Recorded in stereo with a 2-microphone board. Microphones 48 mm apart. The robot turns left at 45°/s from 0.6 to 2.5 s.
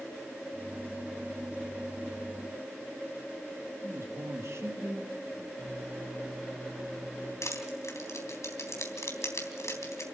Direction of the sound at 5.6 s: 5° right (ahead or behind).